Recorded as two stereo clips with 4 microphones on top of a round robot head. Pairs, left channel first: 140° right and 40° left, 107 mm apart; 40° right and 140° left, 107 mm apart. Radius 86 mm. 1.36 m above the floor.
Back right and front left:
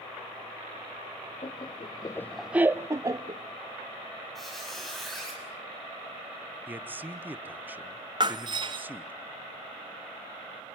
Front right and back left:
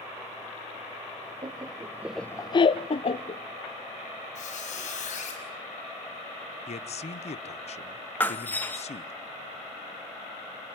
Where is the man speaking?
30° right, 1.0 m.